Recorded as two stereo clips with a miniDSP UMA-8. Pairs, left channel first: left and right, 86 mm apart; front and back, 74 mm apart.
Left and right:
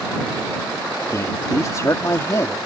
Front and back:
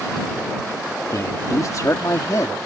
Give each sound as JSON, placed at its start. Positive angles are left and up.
{"t": 1.1, "sound": "a man speaking", "azimuth_deg": 40}